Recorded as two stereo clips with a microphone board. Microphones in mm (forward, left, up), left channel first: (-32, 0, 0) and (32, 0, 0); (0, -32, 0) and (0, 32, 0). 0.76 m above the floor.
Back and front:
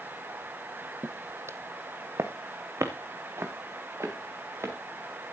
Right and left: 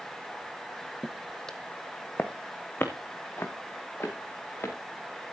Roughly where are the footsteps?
Ahead.